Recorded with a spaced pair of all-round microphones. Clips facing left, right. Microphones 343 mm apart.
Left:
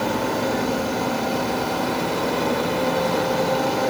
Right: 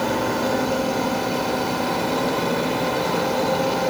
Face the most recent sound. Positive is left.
No sound to turn to.